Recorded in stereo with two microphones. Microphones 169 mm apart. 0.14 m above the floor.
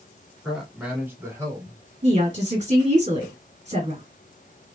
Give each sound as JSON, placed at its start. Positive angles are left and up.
{"t": 0.4, "sound": "a man speaking", "side_deg": 0, "distance_m": 2.0}
{"t": 2.0, "sound": "a woman speaking", "side_deg": -40, "distance_m": 2.5}